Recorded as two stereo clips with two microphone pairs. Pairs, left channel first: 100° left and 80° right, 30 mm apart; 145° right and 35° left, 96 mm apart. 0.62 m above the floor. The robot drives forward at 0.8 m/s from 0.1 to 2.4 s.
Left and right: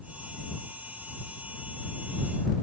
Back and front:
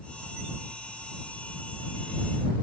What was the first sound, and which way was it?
Only background noise.